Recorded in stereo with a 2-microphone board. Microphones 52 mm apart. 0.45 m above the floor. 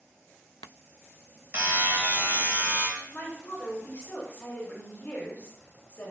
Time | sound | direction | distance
1.5 | a buzzer | 35° right (ahead or behind) | 1.0 m
3.1 | a woman speaking | 30° left (ahead or behind) | 1.0 m